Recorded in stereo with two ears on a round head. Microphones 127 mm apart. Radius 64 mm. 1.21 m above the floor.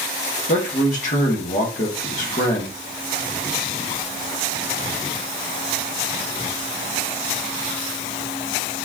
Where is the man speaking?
60° left (ahead or behind), 1.5 m.